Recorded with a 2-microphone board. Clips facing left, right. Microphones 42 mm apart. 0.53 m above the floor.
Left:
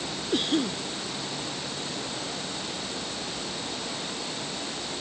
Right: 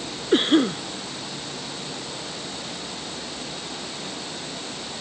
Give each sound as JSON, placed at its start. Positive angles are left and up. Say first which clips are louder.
{"t": 0.3, "sound": "a cough", "louder": "right 8 dB", "side_deg": -40}